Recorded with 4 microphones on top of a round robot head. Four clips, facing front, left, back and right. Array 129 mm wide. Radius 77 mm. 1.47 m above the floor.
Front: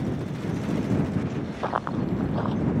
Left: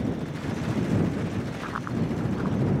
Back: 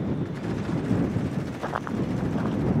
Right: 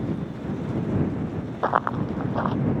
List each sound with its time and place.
1.6 s running footsteps: 75° right